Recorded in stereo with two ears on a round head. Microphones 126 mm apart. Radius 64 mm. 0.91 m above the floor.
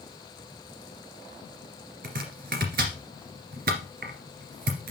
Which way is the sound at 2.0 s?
75° right (ahead or behind).